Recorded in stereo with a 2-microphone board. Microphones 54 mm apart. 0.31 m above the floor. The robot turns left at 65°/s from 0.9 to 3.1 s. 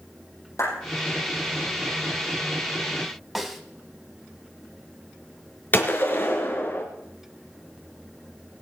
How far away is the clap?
About 9.5 m.